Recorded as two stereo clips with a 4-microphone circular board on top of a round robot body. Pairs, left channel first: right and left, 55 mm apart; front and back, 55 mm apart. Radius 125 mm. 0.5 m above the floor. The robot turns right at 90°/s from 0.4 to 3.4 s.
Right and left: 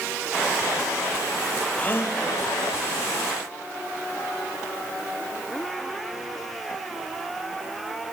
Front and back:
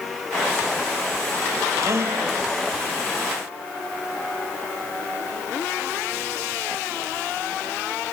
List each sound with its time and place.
1.8 s a gasp: 155° right, 1.3 m; by 2.2 s 120° right, 1.3 m